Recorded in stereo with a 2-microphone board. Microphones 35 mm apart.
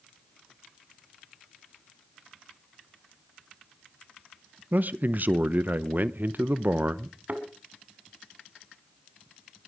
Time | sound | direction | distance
4.7 | a man speaking | 55° right (ahead or behind) | 0.8 m
7.3 | a thud | 50° right (ahead or behind) | 2.0 m